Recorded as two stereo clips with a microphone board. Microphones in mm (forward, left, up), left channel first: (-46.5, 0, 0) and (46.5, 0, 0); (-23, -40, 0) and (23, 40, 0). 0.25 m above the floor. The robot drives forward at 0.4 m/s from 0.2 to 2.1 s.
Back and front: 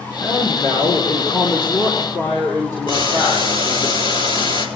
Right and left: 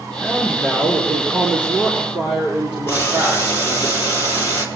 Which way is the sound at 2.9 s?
Straight behind.